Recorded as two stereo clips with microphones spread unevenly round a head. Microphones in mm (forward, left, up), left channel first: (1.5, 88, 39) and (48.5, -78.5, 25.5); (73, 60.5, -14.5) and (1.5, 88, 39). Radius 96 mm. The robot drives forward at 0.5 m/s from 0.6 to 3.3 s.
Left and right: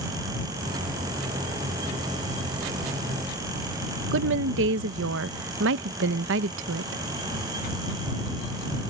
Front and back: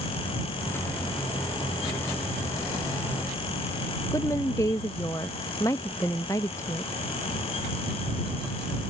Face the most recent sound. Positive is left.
turn(degrees=-85)